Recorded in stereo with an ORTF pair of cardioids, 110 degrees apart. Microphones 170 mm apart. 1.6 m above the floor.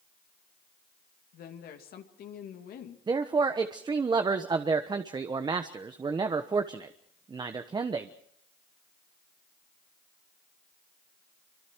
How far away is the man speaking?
About 1.1 m.